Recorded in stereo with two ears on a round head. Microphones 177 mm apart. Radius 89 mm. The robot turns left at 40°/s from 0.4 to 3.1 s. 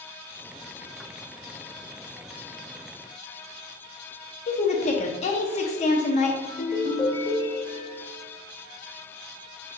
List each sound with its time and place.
4.5 s a woman speaking: 35° left (ahead or behind), 0.6 m
6.5 s a ringtone: 25° left (ahead or behind), 0.9 m